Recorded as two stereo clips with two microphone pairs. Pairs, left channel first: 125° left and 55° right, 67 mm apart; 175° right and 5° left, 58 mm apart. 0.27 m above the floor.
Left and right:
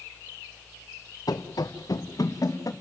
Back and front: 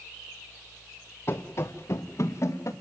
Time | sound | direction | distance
1.3 | running footsteps | 145° left | 1.6 m